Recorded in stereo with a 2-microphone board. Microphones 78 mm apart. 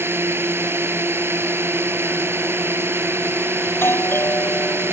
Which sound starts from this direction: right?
A drone, at 0.0 s.